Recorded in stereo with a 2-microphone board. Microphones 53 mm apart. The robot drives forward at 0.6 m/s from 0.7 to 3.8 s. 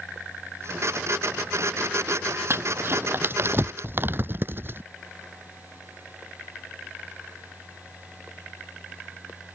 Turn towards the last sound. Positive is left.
turn(degrees=-45)  # may be behind; listen again after turning